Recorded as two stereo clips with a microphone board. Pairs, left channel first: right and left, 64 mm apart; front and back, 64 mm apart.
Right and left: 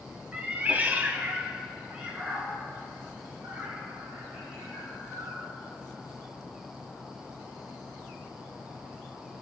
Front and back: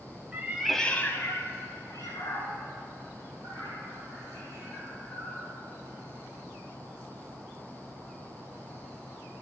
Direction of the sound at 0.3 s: 145° left.